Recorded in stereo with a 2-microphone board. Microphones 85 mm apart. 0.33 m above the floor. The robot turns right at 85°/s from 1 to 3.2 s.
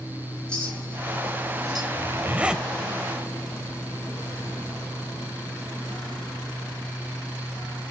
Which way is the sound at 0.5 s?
15° left (ahead or behind).